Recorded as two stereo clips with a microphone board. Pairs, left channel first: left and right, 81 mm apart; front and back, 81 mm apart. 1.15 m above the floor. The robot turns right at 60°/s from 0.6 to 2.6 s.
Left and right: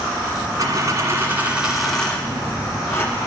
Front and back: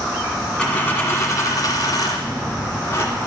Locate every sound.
0.6 s a dropped coin: 80° right, 1.5 m; by 3.1 s 40° left, 1.5 m